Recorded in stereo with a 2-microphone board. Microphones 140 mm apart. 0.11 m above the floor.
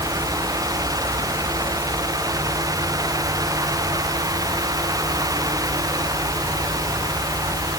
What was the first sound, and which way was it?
Only background noise.